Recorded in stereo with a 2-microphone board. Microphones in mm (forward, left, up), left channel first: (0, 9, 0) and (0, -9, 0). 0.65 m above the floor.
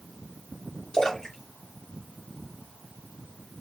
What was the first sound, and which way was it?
A splash, 45° left (ahead or behind).